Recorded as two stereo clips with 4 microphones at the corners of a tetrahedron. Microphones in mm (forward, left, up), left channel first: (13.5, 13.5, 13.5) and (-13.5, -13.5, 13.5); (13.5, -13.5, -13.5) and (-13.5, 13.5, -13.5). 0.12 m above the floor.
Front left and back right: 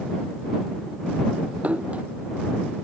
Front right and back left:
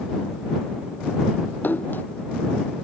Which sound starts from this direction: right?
A splash, at 1.6 s.